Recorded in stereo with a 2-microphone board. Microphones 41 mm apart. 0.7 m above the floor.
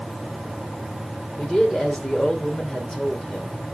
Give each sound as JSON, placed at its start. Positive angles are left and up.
{"t": 1.4, "sound": "a man speaking", "side_deg": 20, "distance_m": 2.5}